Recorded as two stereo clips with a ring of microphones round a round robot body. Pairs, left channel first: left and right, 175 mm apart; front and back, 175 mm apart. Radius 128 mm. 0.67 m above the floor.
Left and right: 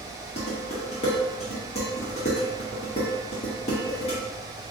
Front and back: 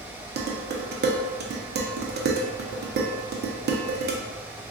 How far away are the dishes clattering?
About 0.6 m.